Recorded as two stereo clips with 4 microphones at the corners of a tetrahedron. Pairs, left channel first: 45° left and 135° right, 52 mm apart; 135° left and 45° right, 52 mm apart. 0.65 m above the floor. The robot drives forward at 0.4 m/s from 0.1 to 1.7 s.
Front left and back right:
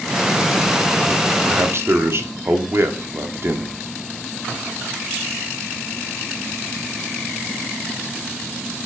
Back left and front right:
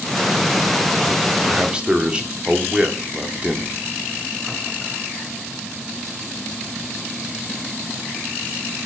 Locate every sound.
1.4 s a man speaking: 105° right, 1.3 m; by 3.7 s 110° right, 1.3 m